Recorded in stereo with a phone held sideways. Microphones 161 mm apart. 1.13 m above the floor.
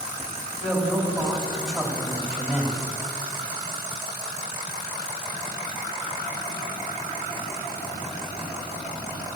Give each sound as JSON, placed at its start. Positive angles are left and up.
{"t": 0.6, "sound": "a man speaking", "side_deg": -5, "distance_m": 3.0}